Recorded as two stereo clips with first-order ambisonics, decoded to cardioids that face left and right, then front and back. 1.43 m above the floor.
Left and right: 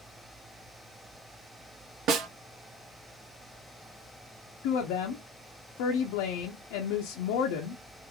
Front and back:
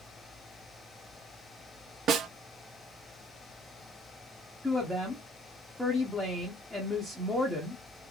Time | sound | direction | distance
2.1 | a snare drum | 130° right | 0.5 m
4.6 | a woman speaking | 85° left | 0.7 m